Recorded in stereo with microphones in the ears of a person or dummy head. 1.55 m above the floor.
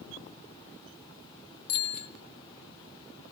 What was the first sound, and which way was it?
A bicycle bell, 50° left (ahead or behind).